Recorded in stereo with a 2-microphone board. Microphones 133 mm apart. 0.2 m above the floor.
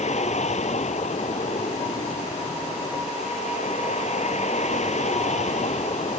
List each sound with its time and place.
0.0 s a vehicle: 60° left (ahead or behind)